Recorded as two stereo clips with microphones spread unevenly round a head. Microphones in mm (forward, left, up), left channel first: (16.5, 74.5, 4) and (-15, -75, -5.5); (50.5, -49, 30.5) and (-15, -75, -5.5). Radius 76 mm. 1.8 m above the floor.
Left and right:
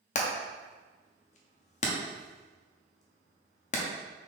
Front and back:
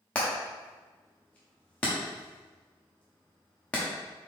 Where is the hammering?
60° left, 0.7 m.